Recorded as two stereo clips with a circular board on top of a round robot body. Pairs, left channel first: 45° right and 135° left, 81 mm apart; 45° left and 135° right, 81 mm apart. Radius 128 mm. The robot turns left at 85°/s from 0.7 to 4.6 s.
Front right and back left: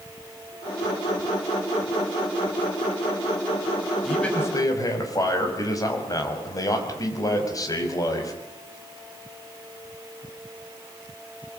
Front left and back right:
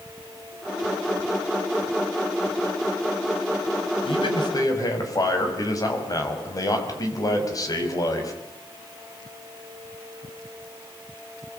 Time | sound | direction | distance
4.0 | a man speaking | 45° left | 5.5 m